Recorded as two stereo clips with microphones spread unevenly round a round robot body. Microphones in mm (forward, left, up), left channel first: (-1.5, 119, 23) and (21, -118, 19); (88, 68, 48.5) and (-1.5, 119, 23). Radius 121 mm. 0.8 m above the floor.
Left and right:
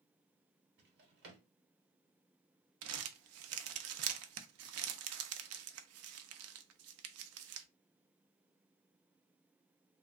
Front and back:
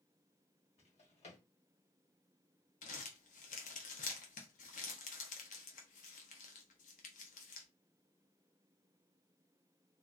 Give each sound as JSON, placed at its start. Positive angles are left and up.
{"t": 0.8, "sound": "a drawer", "azimuth_deg": -40, "distance_m": 1.0}
{"t": 2.8, "sound": "crumpling", "azimuth_deg": -50, "distance_m": 0.5}